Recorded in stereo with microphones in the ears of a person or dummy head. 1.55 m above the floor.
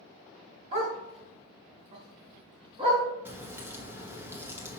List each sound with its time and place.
0.7 s a dog barking: 35° right (ahead or behind), 2 m; by 3.0 s 30° right (ahead or behind), 3.5 m
3.2 s a crack: 15° right (ahead or behind), 1.2 m